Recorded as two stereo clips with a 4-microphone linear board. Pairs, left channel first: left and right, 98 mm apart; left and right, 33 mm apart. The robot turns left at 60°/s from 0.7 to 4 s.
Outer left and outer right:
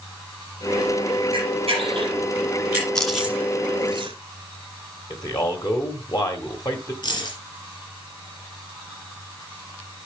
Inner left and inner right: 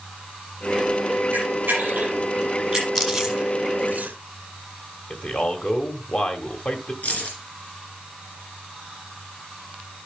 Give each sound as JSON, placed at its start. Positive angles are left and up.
{"t": 1.3, "sound": "a camera shutter", "side_deg": -80, "distance_m": 8.5}
{"t": 3.0, "sound": "chewing", "side_deg": 5, "distance_m": 1.8}
{"t": 5.1, "sound": "a man speaking", "side_deg": 45, "distance_m": 1.8}
{"t": 7.0, "sound": "keys jangling", "side_deg": 55, "distance_m": 5.5}